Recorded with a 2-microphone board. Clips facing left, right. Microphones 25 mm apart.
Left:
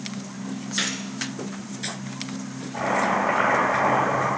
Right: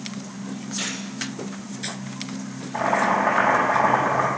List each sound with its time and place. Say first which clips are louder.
0.8 s a gunshot: left 4 dB; 75° left (ahead or behind), 1.7 m
2.7 s boiling: right 2 dB; 20° right (ahead or behind), 4.5 m